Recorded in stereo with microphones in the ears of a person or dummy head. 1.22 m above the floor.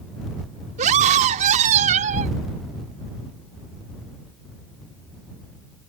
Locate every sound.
0.8 s a scream: 40° right (ahead or behind)